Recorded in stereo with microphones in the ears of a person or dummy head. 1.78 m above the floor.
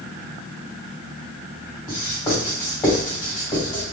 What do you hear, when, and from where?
1.9 s writing: 35° left (ahead or behind), 1.9 m